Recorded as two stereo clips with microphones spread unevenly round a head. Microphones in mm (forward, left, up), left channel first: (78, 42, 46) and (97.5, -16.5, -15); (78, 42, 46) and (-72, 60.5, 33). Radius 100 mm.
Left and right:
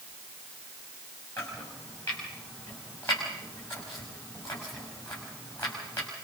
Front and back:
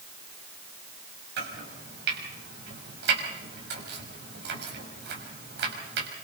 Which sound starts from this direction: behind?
Chopping, at 1.4 s.